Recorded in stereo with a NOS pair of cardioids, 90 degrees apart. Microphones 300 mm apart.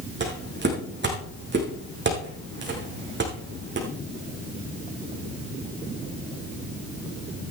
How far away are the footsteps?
About 6 m.